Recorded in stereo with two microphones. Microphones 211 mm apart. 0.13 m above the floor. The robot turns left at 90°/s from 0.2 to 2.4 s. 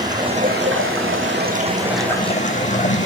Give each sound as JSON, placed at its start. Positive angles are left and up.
{"t": 0.0, "sound": "running water", "azimuth_deg": -20, "distance_m": 2.5}